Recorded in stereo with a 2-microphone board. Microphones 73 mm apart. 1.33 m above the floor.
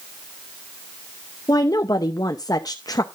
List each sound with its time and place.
1.5 s a woman speaking: 60° left (ahead or behind), 0.7 m